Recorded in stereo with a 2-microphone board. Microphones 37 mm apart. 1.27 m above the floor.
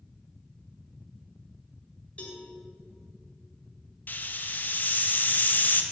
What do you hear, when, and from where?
2.2 s a cowbell: 35° left (ahead or behind), 2.5 m
4.1 s a hiss: 55° left (ahead or behind), 0.9 m